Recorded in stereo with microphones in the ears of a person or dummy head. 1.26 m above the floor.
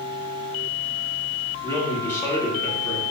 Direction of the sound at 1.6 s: 15° left (ahead or behind).